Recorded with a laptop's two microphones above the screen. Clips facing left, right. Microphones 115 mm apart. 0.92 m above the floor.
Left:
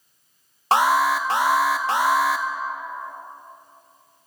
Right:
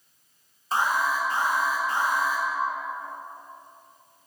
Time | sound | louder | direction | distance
0.7 | an alarm | left 7 dB | 80° left | 0.6 m